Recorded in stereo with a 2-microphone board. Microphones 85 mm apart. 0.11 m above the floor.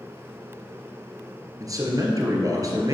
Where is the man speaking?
40° right (ahead or behind), 1.6 m.